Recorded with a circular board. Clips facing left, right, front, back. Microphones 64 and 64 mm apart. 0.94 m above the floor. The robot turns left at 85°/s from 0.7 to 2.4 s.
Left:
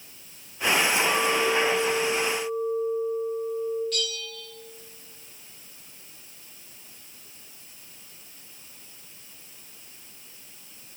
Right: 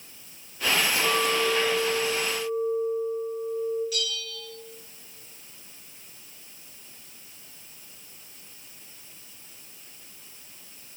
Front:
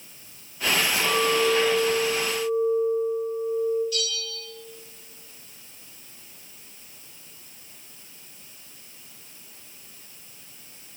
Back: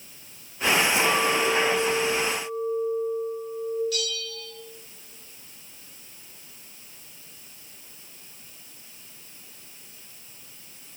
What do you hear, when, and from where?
1.0 s a clink: 90° right, 3.5 m; by 3.8 s 155° left, 3.5 m
3.9 s a bell: 175° right, 3 m